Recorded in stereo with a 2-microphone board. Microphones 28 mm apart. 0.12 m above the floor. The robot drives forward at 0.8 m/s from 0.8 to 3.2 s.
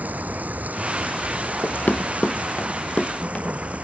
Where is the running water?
70° right (ahead or behind); by 3.8 s 55° right (ahead or behind).